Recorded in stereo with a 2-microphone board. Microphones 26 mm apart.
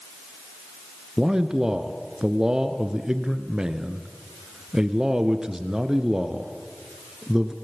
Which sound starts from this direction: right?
A man speaking, at 1.2 s.